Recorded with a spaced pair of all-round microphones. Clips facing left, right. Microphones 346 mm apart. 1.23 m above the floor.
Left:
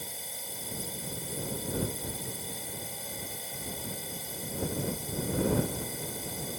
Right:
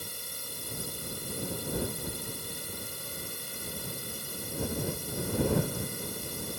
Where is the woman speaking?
No woman speaking in this recording.